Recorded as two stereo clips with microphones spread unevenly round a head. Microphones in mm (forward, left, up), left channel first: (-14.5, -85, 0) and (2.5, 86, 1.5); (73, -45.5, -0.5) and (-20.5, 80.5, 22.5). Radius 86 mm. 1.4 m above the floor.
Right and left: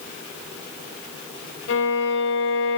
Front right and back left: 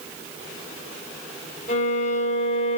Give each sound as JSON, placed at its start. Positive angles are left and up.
{"t": 1.7, "sound": "a violin", "azimuth_deg": -105, "distance_m": 5.0}